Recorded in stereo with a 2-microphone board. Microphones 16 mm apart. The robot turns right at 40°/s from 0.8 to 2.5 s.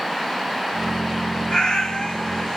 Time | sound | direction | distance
1.5 | a cat meowing | 70° left | 1.9 m